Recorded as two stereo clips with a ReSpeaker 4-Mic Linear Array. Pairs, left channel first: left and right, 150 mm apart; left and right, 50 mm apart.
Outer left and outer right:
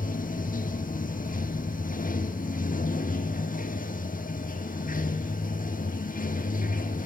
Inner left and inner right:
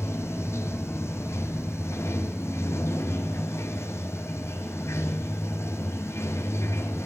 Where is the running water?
65° left (ahead or behind), 1.1 m.